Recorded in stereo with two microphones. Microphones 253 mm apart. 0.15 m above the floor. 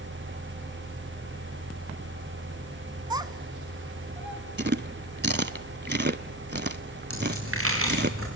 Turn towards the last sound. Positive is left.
turn(degrees=-60)  # may be behind; listen again after turning